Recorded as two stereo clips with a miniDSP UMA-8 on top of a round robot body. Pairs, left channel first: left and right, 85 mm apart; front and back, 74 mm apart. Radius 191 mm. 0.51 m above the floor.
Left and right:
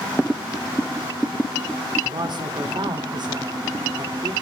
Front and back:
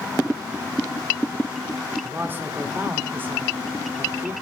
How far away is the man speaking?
About 1.7 m.